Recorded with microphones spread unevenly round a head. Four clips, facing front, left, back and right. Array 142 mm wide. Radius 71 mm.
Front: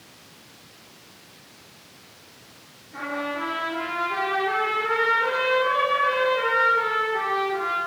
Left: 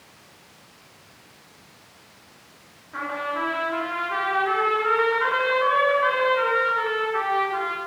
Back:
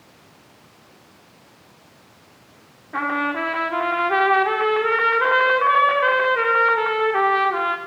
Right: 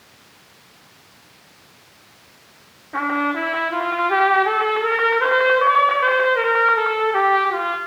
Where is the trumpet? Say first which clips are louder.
Right 7 dB, back 6 dB; 115° right, 3.5 m.